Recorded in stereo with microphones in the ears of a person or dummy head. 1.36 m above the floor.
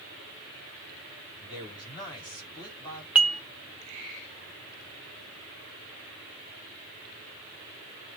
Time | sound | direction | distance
1.4 | a man speaking | 25° left (ahead or behind) | 4 m
3.1 | dishes clattering | 5° right (ahead or behind) | 0.6 m